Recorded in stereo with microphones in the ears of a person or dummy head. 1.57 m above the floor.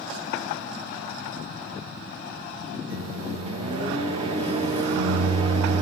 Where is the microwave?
25° right (ahead or behind), 0.6 m.